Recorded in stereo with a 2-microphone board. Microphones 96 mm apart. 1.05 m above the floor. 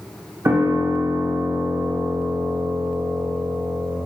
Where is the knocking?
No knocking in this recording.